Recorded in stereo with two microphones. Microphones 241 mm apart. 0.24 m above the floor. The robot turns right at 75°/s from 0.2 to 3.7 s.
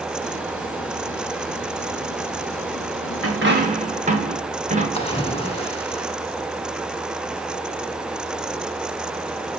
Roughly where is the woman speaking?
I don't hear a woman speaking.